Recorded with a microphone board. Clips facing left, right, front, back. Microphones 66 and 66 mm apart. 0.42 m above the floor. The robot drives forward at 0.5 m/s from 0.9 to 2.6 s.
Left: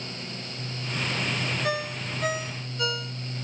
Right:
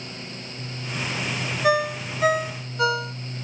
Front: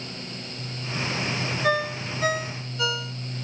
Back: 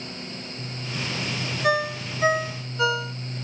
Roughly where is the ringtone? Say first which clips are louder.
Right 8 dB, back 2 dB; right.